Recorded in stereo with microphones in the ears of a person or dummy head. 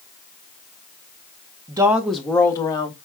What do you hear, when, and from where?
1.7 s a woman speaking: 20° right (ahead or behind), 0.7 m; by 3.0 s 25° left (ahead or behind), 1.2 m